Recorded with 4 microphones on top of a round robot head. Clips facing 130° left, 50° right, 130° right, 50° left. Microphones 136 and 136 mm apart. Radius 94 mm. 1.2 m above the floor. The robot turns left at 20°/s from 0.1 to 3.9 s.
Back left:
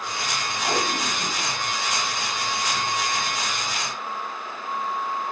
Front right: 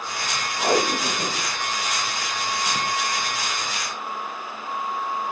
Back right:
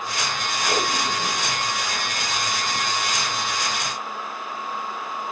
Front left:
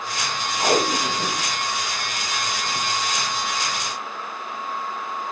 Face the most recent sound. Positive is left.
turn(degrees=-70)